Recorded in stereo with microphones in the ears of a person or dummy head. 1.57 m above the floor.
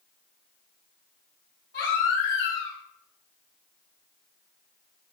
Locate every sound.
1.7 s a baby crying: 60° left (ahead or behind), 5 m